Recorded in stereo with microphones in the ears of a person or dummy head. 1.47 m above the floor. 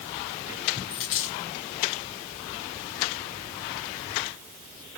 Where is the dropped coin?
20° left (ahead or behind), 0.7 m.